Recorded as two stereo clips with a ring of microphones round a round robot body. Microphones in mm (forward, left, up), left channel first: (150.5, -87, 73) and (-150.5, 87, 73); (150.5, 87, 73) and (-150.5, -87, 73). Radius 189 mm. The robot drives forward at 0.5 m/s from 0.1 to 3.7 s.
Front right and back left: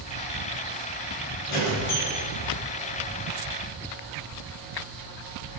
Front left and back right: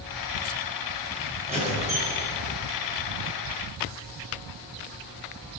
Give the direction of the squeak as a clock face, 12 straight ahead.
3 o'clock.